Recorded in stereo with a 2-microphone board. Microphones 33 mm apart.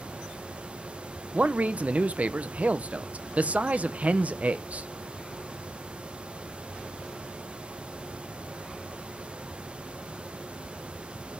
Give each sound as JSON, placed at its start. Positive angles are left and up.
{"t": 1.3, "sound": "a man speaking", "side_deg": -50, "distance_m": 0.8}